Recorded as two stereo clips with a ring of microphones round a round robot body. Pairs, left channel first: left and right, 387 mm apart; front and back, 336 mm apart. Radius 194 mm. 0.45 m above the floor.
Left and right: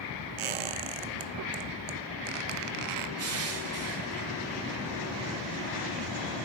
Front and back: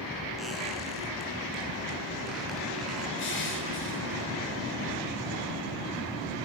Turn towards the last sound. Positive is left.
turn(degrees=-50)